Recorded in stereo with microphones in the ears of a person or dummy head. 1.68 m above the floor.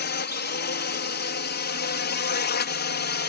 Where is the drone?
50° left (ahead or behind); by 3.3 s 45° left (ahead or behind).